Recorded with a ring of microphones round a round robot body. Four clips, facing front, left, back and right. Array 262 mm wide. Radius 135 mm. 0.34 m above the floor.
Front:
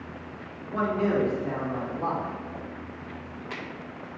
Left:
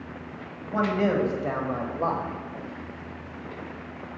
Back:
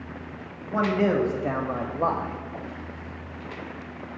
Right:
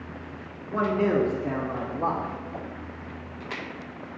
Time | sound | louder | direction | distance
0.7 | a man speaking | even, back 3 dB | 140° left | 2 m